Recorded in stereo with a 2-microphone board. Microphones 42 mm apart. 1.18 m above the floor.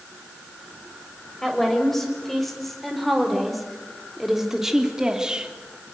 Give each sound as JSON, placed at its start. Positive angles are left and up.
{"t": 1.4, "sound": "a woman speaking", "side_deg": 5, "distance_m": 6.0}